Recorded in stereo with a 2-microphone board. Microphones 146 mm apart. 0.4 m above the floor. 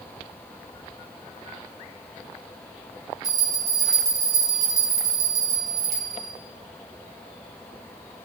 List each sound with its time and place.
3.2 s a bell: 60° right (ahead or behind), 1.1 m